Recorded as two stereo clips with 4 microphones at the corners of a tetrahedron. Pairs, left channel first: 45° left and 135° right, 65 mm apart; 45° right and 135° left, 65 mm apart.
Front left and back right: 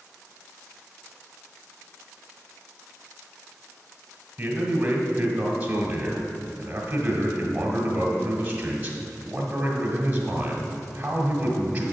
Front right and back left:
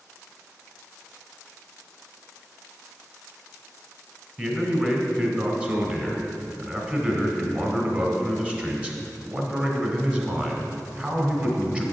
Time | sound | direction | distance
4.4 | a man speaking | 175° right | 1.4 m